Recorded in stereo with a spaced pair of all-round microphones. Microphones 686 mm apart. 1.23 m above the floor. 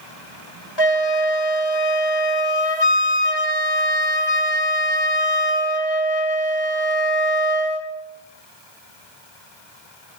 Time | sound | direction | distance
0.8 | a flute | 35° left (ahead or behind) | 2.5 m